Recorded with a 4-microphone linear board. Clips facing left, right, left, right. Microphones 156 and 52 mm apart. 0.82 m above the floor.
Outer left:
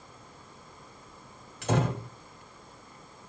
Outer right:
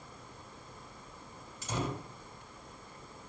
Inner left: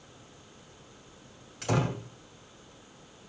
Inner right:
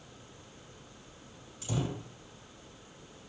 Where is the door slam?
70° left (ahead or behind), 2.5 m.